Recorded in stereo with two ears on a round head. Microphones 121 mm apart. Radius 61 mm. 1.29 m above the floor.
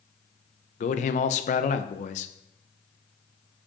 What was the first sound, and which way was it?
A man speaking, 55° left (ahead or behind).